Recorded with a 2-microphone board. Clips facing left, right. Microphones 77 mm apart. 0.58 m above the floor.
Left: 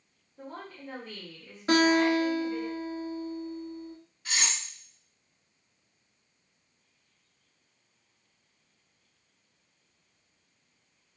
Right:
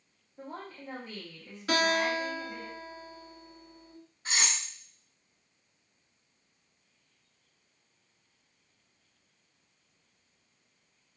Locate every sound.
0.4 s a woman speaking: 10° right (ahead or behind), 1.3 m
1.7 s a guitar: 35° left (ahead or behind), 1.1 m
4.2 s cutlery clinking: 30° right (ahead or behind), 0.6 m